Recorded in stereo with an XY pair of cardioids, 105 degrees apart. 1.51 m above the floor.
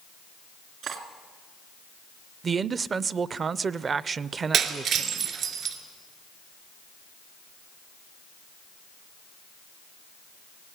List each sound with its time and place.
0.8 s cutlery clinking: 65° right, 2 m
2.4 s a man speaking: 40° right, 0.6 m
4.5 s breaking glass: 70° right, 2.5 m